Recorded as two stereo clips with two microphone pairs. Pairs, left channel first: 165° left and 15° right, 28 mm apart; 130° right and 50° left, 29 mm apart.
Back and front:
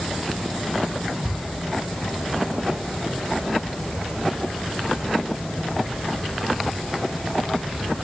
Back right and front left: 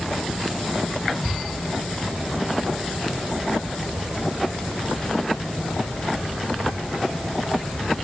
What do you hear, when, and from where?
Only background noise.